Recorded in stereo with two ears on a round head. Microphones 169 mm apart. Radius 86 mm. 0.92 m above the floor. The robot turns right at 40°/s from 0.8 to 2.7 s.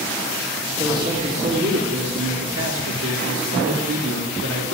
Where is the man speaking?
165° right, 1.9 m; by 4.8 s 85° right, 1.9 m.